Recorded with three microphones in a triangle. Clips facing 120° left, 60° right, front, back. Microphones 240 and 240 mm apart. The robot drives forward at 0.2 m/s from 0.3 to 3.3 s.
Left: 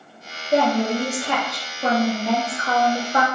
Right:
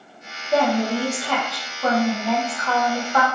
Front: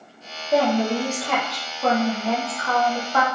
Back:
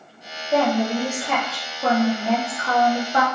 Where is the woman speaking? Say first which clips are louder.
Left 1 dB, even; 70° left, 0.8 m; by 3.2 s 145° left, 0.9 m.